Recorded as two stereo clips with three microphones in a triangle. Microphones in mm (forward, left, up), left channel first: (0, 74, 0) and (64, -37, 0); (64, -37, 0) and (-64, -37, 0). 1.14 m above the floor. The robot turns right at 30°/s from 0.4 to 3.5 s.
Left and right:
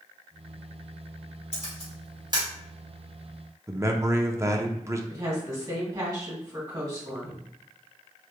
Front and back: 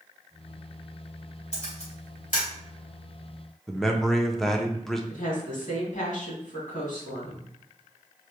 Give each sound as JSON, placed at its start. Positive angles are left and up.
{"t": 1.5, "sound": "a camera shutter", "azimuth_deg": -30, "distance_m": 2.5}
{"t": 3.7, "sound": "a man speaking", "azimuth_deg": -85, "distance_m": 0.6}
{"t": 5.1, "sound": "a woman speaking", "azimuth_deg": 5, "distance_m": 2.5}